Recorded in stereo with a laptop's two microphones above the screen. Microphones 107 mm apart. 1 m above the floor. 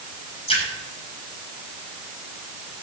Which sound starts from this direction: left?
A splash, at 0.5 s.